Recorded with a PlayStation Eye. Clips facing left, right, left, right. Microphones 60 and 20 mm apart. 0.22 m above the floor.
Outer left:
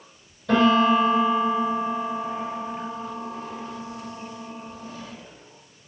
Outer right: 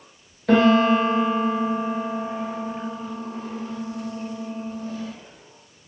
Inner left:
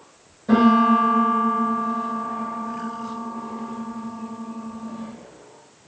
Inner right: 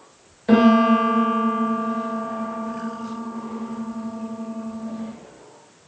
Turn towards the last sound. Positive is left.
turn(degrees=-70)  # may be behind; listen again after turning